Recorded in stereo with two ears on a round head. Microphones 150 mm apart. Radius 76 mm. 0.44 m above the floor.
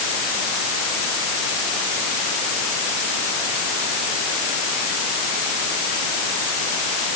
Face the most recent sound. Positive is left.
No sound to turn to.